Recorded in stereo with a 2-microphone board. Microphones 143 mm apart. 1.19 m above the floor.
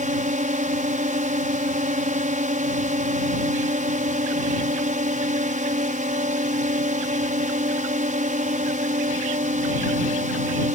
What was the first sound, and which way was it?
A drone, 65° right (ahead or behind).